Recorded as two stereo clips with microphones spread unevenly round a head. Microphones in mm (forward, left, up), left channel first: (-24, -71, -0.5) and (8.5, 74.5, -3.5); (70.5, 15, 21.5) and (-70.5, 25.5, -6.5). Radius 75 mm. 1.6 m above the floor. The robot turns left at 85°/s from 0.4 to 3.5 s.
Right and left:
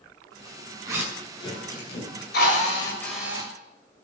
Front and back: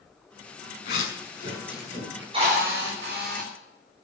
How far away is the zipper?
About 7 m.